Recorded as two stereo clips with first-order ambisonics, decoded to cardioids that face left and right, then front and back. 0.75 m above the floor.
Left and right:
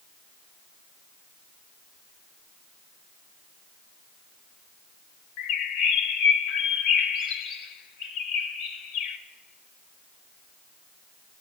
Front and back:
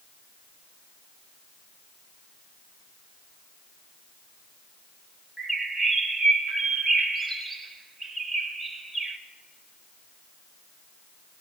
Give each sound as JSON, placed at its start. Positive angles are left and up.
{"t": 5.4, "sound": "a bird", "azimuth_deg": 90, "distance_m": 0.8}